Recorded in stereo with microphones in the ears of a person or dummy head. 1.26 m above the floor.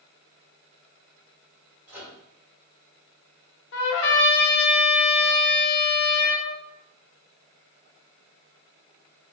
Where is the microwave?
5° right (ahead or behind), 1.0 m.